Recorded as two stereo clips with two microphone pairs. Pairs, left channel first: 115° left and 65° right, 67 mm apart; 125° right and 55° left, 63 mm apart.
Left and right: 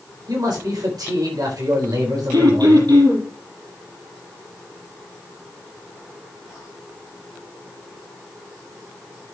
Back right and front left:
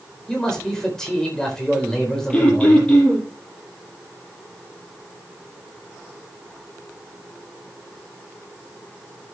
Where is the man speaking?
45° right, 4 m.